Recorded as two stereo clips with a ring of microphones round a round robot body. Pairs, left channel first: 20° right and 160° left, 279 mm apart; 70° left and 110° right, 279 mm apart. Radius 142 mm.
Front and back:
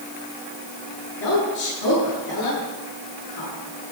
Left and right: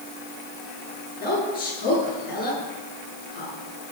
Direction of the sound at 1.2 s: 5° left.